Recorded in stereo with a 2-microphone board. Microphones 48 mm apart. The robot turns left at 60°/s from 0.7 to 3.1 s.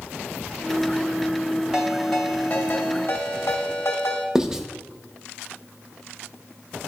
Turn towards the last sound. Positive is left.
turn(degrees=-10)  # may be behind; listen again after turning